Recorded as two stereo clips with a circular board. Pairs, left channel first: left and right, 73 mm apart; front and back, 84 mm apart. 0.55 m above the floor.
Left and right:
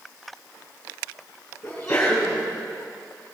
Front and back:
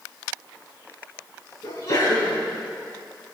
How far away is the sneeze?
About 4.5 m.